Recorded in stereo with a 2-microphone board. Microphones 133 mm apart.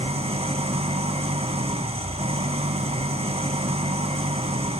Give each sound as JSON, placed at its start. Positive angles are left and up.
{"t": 0.0, "sound": "an engine running", "side_deg": -50, "distance_m": 3.0}